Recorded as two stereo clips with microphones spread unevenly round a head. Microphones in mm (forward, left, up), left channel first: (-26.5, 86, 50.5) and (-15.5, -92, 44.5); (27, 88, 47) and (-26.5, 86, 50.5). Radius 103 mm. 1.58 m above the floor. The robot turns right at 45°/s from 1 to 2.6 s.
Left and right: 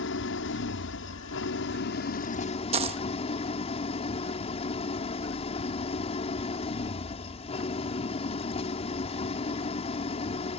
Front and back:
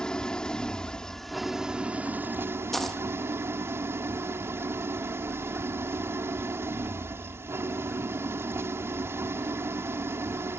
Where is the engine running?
75° left; by 10.6 s 150° left.